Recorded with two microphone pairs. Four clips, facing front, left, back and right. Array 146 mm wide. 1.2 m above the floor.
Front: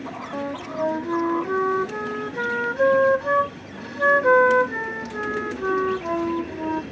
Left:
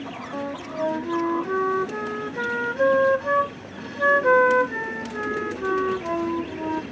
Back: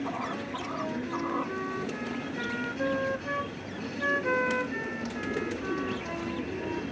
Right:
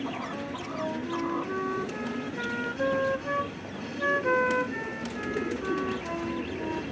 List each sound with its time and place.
0.3 s a flute: 35° left